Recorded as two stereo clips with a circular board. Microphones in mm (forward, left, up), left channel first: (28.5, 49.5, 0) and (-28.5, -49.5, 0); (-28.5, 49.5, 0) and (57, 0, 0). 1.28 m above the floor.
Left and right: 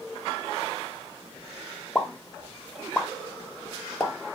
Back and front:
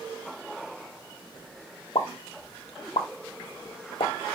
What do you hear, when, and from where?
1.9 s a pop: 145° left, 0.8 m